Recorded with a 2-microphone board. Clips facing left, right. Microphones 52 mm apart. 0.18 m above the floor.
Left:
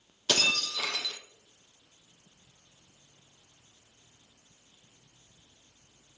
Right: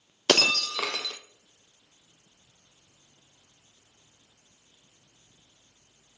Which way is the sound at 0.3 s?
70° right (ahead or behind).